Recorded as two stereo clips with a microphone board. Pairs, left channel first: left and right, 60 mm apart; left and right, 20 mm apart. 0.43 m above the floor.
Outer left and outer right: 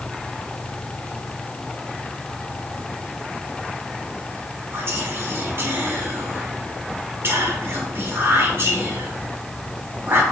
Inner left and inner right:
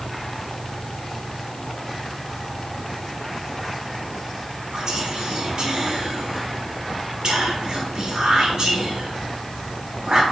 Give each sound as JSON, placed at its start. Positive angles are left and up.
{"t": 4.7, "sound": "whispering", "side_deg": -40, "distance_m": 0.9}